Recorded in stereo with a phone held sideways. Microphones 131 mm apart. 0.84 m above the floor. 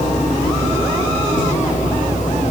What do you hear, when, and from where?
0.0 s a machine running: 80° left, 7.5 m